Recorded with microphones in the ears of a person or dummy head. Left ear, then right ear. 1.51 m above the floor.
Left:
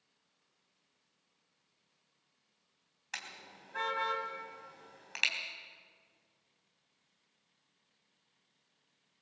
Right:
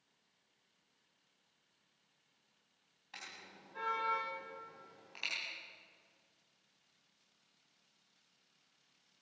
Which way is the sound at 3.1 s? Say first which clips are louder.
Left 6 dB; 55° left (ahead or behind).